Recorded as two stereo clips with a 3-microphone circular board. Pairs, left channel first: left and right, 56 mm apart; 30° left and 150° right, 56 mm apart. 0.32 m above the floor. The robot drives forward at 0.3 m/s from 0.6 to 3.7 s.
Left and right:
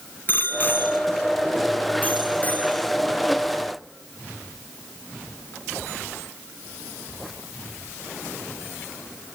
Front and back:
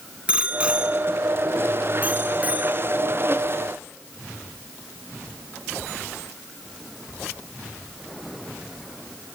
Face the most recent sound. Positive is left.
turn(degrees=155)